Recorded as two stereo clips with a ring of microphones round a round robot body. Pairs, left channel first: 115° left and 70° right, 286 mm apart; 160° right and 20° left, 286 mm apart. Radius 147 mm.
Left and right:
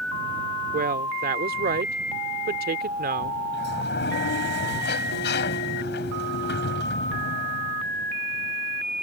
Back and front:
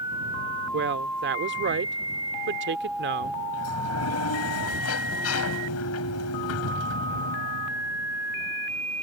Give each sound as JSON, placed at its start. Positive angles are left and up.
{"t": 0.7, "sound": "a woman speaking", "azimuth_deg": -20}
{"t": 3.5, "sound": "a sliding door", "azimuth_deg": 165}